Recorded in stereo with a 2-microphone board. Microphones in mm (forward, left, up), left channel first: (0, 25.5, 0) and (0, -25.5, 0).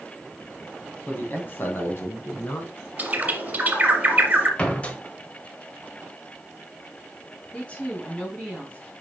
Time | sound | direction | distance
1.1 | a man speaking | 30° left (ahead or behind) | 2 m
3.0 | a bird | 30° right (ahead or behind) | 1.8 m
4.6 | a door slam | 25° left (ahead or behind) | 1.1 m
7.5 | a woman speaking | 25° left (ahead or behind) | 3.5 m